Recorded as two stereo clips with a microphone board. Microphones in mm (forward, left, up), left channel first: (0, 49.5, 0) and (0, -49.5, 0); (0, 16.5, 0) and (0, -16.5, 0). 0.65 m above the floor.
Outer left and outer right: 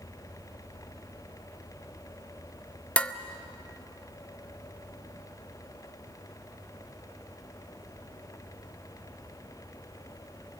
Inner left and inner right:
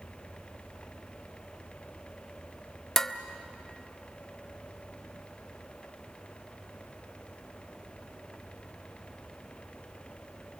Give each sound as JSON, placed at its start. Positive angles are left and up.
{"t": 3.0, "sound": "dishes clattering", "side_deg": 10, "distance_m": 0.7}